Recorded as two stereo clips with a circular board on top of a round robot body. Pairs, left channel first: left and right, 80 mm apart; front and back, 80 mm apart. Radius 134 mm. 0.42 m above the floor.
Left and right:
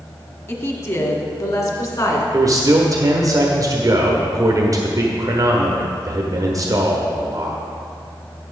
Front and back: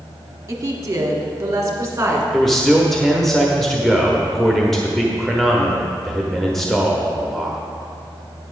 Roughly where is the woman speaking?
Behind left.